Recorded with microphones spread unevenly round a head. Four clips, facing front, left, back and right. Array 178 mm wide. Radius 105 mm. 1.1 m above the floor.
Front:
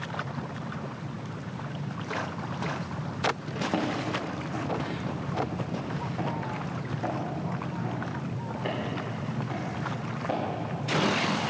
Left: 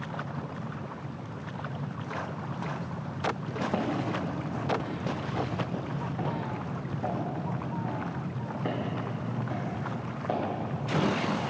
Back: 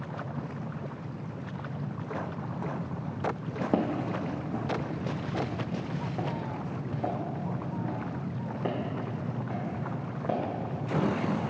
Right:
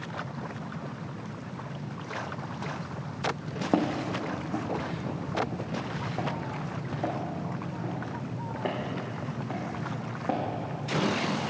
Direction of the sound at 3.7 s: 130° right.